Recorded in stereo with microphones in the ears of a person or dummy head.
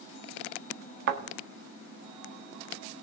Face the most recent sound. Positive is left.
turn(degrees=-55)  # may be behind; listen again after turning